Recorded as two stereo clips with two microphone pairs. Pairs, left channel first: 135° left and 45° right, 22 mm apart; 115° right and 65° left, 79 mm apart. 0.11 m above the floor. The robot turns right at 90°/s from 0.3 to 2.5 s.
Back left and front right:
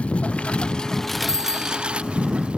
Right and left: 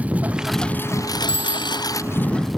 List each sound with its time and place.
0.0 s a lawn mower: 140° left; by 2.6 s 25° right
1.3 s a bicycle bell: 120° left; by 1.9 s 170° left